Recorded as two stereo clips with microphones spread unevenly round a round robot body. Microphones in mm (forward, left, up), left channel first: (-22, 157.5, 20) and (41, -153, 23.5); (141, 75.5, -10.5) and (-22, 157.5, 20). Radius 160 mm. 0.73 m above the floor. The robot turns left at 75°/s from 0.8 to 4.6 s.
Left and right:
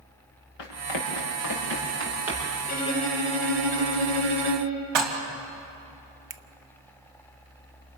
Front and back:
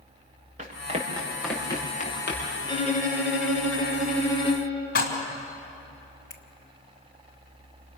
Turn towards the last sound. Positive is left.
turn(degrees=-80)